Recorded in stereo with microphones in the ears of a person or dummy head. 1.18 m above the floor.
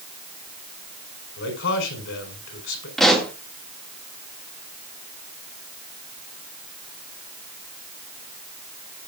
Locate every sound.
1.4 s a man speaking: 65° left (ahead or behind), 4.5 m
3.0 s a pop: 5° left (ahead or behind), 2 m